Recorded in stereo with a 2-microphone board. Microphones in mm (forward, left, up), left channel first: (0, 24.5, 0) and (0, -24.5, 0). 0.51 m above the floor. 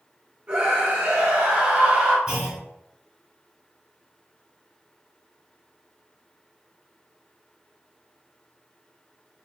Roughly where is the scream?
Right.